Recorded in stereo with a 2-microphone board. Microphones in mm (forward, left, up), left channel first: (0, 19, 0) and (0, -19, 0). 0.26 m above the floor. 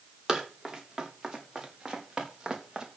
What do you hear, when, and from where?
0.3 s running footsteps: 15° right (ahead or behind), 6 m